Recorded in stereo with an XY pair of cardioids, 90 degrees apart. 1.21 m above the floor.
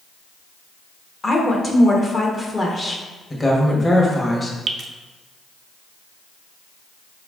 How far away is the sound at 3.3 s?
About 1.3 m.